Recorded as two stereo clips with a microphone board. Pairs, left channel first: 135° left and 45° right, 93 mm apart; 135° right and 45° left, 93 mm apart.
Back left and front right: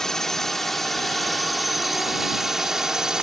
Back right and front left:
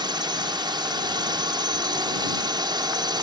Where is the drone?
50° left; by 3.2 s 35° left.